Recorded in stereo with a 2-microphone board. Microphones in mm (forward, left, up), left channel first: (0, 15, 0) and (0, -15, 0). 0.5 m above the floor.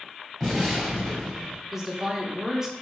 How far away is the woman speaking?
About 0.9 m.